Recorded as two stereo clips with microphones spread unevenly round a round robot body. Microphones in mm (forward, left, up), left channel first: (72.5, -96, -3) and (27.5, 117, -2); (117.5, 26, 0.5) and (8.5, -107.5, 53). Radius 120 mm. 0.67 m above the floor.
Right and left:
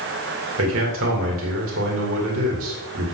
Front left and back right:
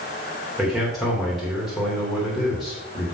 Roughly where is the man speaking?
Behind left.